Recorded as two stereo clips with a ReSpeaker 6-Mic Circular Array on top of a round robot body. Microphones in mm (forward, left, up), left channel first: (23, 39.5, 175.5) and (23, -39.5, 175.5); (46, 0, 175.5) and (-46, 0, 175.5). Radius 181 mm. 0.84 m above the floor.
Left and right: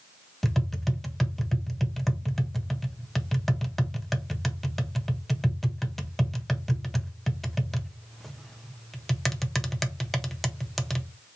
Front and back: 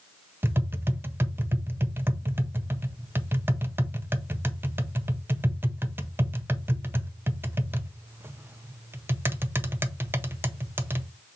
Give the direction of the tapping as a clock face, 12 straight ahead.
6 o'clock.